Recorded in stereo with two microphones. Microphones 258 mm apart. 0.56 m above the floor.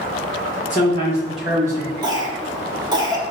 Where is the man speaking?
35° left (ahead or behind), 0.7 m; by 1.9 s 20° right (ahead or behind), 1.2 m.